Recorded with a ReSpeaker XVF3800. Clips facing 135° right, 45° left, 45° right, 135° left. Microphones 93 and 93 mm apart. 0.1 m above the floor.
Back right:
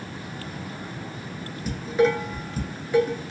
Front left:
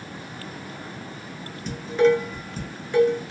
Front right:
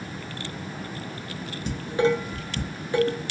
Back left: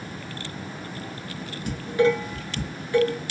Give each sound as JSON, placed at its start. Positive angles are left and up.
{"t": 1.7, "sound": "dishes clattering", "azimuth_deg": -55, "distance_m": 0.8}